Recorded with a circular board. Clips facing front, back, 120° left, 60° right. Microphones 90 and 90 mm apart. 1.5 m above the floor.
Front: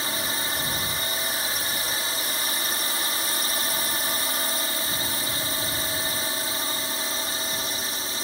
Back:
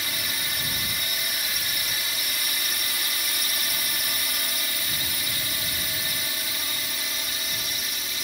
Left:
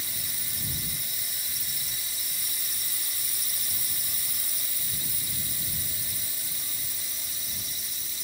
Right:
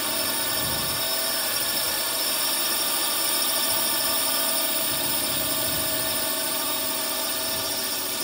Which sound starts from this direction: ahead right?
A drone, at 0.0 s.